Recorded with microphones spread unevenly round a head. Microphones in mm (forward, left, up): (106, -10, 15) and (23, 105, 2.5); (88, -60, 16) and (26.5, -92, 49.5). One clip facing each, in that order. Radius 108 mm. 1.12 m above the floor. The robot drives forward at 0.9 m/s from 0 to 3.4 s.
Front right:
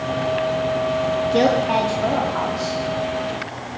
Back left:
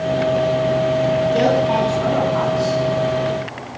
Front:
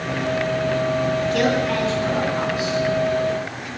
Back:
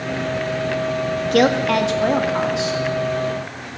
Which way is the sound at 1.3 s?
125° right.